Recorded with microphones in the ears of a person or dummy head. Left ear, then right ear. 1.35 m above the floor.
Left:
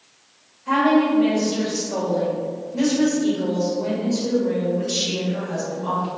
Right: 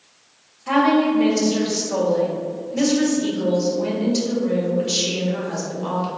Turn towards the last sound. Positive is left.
turn(degrees=-60)  # may be behind; listen again after turning